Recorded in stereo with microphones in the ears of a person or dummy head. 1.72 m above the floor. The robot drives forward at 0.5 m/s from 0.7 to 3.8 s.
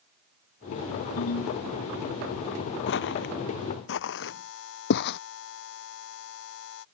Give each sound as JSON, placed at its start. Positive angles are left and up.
{"t": 1.2, "sound": "a ringtone", "side_deg": 85}
{"t": 2.9, "sound": "footsteps", "side_deg": 70}
{"t": 4.2, "sound": "a buzzer", "side_deg": 70}